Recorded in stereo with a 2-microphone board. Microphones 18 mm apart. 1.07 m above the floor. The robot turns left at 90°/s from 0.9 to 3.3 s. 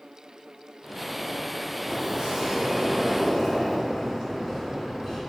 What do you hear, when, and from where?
1.9 s a sliding door: 65° right, 2.5 m; by 5.2 s 165° left, 2.5 m